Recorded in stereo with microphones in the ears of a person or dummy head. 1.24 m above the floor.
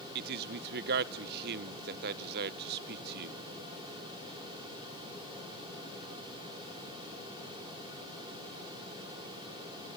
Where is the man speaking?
55° right (ahead or behind), 0.7 m.